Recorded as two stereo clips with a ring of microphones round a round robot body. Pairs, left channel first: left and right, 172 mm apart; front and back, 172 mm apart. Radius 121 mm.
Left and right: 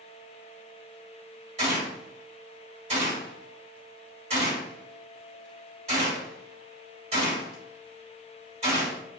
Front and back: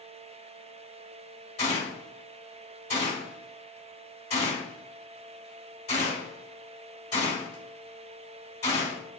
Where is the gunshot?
50° right, 1.6 m.